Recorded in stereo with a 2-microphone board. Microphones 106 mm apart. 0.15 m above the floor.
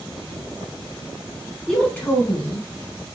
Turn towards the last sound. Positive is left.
turn(degrees=40)  # may be behind; listen again after turning